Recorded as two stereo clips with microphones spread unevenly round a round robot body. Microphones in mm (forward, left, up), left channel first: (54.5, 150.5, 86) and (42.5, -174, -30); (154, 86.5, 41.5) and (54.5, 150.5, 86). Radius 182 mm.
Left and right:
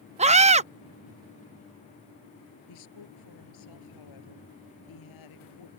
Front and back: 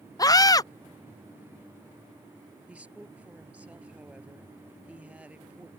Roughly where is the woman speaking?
Left.